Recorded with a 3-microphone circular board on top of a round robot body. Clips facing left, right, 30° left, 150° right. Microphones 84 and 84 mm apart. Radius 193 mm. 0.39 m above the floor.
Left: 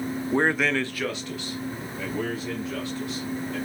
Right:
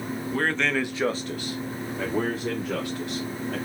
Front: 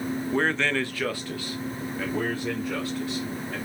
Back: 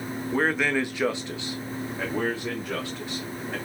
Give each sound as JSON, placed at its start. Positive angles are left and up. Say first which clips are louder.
{"t": 0.3, "sound": "a man speaking", "louder": "left 2 dB, back 2 dB", "azimuth_deg": 125, "distance_m": 0.9}